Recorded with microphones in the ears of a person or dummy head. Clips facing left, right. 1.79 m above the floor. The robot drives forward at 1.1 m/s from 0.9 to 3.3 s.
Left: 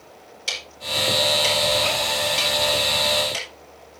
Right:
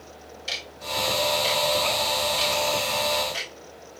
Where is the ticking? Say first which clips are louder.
Left 2 dB; 70° left (ahead or behind), 5.5 m; by 3.5 s 50° left (ahead or behind), 7 m.